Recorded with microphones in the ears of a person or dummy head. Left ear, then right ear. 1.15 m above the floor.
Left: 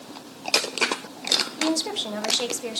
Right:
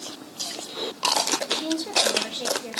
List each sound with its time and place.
1.6 s a woman speaking: 85° left, 2.5 m